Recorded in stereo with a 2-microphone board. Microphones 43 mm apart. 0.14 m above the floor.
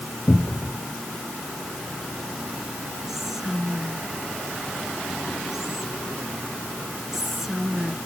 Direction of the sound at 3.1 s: 10° right (ahead or behind).